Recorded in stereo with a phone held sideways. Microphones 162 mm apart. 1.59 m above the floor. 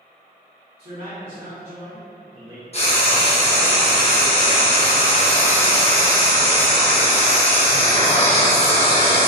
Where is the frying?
40° left (ahead or behind), 0.8 m.